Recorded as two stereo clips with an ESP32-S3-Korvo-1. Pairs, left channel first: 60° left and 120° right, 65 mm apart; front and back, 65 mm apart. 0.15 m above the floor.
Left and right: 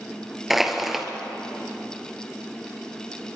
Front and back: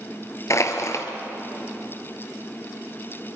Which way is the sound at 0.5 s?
35° right.